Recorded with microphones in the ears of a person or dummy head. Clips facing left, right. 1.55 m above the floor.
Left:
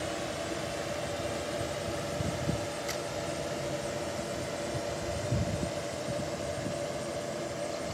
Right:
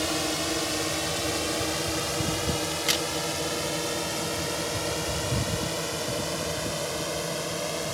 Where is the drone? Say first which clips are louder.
Right 6 dB; 80° right.